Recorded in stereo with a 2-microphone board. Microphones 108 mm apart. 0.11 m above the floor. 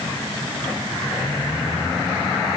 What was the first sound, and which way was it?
Only background noise.